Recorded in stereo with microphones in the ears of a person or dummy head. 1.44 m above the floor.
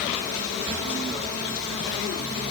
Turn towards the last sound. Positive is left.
No sound to turn to.